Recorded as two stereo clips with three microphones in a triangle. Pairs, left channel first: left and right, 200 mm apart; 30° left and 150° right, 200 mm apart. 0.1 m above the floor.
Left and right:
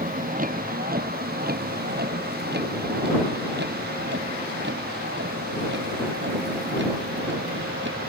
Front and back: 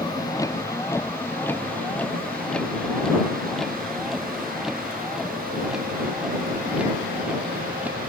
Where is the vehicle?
40° right; by 8.1 s 70° right.